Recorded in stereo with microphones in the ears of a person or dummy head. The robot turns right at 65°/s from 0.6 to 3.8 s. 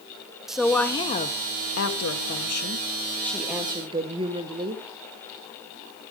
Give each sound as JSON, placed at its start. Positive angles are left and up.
{"t": 0.5, "sound": "a woman speaking", "azimuth_deg": 0, "distance_m": 2.0}